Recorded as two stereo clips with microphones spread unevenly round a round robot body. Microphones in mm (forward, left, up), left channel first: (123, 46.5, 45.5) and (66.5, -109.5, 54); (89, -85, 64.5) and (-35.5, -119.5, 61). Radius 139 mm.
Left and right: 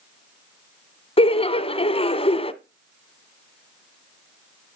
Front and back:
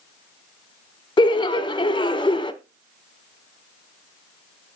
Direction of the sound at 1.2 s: 45° left.